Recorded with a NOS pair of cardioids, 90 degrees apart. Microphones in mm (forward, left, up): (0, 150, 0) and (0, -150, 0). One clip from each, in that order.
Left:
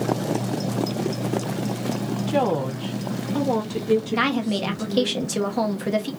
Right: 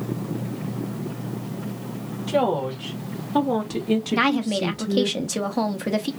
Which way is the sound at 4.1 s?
5° right.